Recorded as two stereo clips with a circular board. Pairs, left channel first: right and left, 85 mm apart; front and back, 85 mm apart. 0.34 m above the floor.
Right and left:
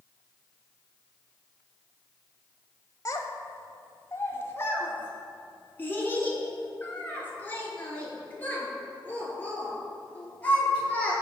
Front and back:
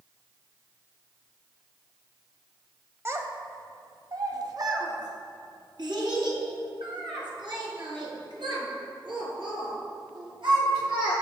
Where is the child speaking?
130° right, 1.0 m; by 11.1 s 165° right, 5 m.